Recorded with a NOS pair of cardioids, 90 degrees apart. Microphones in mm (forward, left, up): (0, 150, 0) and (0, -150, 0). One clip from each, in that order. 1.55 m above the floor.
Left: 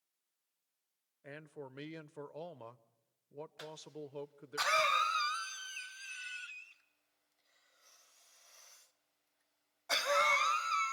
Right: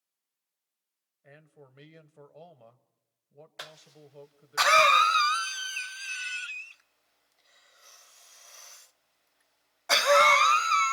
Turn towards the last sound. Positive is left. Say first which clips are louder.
# right 2 dB
turn(degrees=-50)